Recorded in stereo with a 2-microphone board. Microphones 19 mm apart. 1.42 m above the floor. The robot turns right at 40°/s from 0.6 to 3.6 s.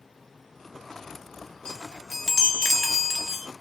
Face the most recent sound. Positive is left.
turn(degrees=-155)